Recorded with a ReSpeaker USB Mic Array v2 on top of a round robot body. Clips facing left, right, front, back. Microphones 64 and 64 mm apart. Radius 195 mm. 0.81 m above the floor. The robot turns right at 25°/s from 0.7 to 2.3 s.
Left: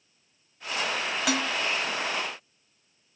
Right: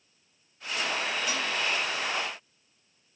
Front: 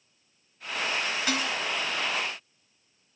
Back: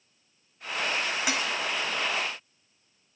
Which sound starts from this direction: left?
Dishes clattering, at 1.3 s.